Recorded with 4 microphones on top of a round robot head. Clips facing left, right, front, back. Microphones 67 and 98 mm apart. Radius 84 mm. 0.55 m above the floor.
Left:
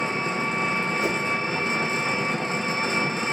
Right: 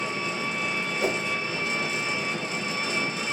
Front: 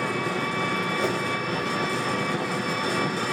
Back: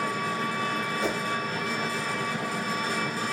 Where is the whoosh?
50° right, 1.8 m.